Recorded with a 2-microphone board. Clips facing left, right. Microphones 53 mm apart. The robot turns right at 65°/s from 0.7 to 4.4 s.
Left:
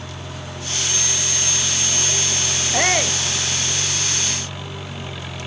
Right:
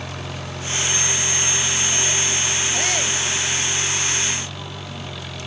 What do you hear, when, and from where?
0.0 s an engine running: 75° right; by 5.5 s 165° left
2.7 s a shout: 130° left; by 3.2 s 160° left